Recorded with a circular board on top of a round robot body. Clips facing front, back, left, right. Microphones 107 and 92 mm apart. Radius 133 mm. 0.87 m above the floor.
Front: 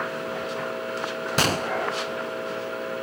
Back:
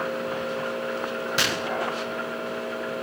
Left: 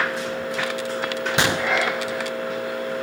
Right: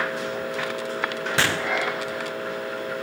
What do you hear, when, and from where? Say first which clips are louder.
1.4 s a gunshot: front 6 dB, left 2 dB; 25° left, 0.6 m